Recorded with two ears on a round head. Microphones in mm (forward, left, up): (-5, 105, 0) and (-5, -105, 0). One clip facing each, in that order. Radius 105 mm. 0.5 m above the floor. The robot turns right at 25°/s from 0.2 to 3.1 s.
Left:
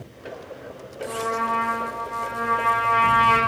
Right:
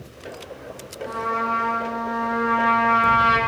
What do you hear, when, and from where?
1.1 s a trumpet: 125° right, 1.5 m; by 3.4 s 75° right, 1.5 m